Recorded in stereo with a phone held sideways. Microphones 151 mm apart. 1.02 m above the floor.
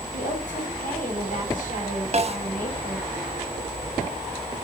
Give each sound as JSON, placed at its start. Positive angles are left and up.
{"t": 0.1, "sound": "a woman speaking", "side_deg": 55, "distance_m": 7.0}
{"t": 2.1, "sound": "a snare drum", "side_deg": -45, "distance_m": 1.3}